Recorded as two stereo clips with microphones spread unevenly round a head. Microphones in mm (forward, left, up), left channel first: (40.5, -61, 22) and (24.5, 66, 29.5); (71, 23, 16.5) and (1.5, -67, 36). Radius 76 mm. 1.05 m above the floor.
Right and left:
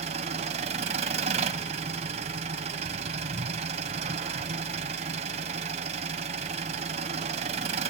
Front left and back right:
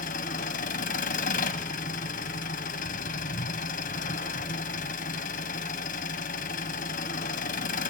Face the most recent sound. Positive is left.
turn(degrees=65)